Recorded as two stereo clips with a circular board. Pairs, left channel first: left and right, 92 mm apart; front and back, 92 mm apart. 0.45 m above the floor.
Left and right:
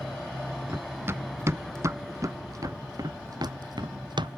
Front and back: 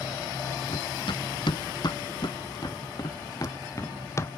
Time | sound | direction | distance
0.7 | running footsteps | 25° right | ?